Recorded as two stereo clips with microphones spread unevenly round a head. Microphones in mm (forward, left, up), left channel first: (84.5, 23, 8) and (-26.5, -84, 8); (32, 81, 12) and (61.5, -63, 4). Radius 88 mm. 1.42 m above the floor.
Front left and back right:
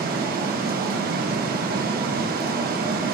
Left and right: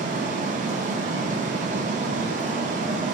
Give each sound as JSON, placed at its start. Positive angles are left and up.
{"t": 0.0, "sound": "running water", "azimuth_deg": -125, "distance_m": 0.9}